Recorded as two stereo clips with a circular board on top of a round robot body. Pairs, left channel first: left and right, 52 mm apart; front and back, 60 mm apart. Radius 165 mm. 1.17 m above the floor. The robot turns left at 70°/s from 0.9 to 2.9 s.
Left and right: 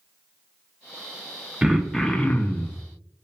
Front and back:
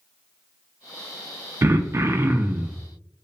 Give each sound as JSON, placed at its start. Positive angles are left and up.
{"t": 1.6, "sound": "throat clearing", "azimuth_deg": -165, "distance_m": 0.5}